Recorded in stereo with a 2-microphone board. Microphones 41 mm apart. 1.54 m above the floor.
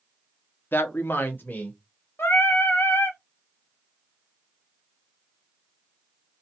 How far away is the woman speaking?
About 0.5 m.